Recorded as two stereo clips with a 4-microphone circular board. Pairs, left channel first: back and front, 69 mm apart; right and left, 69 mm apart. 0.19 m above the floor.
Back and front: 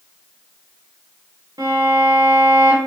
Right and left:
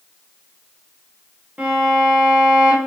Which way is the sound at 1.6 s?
15° left.